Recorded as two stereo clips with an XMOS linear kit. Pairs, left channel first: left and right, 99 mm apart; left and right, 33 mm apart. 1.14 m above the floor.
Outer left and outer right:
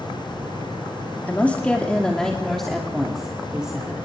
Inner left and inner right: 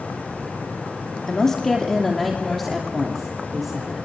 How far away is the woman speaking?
About 2.5 m.